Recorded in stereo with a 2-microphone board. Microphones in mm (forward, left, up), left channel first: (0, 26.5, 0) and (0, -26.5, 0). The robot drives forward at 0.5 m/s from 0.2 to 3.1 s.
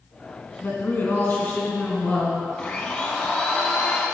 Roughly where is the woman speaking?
Left.